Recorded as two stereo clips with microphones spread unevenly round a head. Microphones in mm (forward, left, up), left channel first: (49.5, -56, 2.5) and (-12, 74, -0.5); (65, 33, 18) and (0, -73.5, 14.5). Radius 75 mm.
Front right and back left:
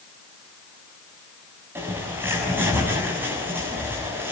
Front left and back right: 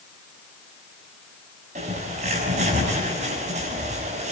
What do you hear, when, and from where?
1.8 s a bird: 165° right, 6.5 m